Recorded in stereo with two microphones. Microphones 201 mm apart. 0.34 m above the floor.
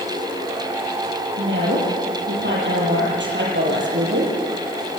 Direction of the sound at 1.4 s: 80° right.